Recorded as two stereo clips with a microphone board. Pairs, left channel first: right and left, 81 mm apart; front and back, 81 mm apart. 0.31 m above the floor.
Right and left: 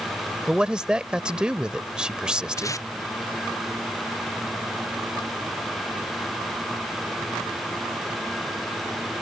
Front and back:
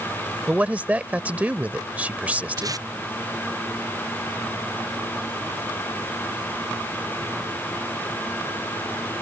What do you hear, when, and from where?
0.5 s a man speaking: 150° left
2.6 s tape being pulled: 140° right